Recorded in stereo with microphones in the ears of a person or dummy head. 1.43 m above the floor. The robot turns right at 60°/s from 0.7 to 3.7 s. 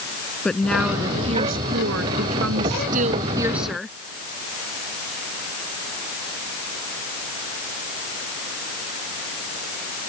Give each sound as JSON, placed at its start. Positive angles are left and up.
{"t": 0.5, "sound": "a woman speaking", "azimuth_deg": 180}